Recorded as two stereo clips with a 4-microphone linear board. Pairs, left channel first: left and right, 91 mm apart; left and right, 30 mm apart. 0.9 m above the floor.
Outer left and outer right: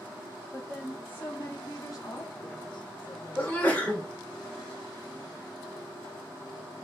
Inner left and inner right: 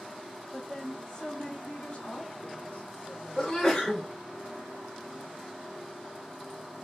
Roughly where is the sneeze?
Centre.